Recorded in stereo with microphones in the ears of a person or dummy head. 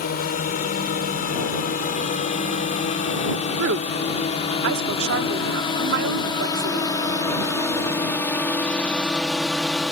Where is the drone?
40° left (ahead or behind); by 9.9 s 10° right (ahead or behind).